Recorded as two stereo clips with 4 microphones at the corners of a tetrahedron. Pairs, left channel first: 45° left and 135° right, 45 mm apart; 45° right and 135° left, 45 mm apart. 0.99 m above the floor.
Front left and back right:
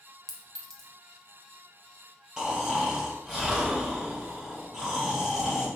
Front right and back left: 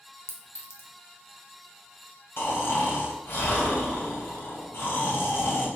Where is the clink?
35° right, 0.9 m.